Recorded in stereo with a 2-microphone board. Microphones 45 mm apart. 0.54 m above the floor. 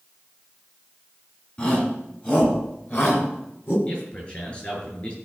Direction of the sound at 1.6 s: 35° left (ahead or behind).